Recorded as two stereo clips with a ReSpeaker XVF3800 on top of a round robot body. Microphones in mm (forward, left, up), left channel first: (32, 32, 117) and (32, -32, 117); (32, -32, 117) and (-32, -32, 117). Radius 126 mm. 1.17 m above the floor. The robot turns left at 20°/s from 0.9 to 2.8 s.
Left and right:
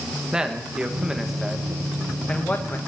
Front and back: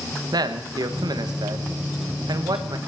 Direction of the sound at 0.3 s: 170° right.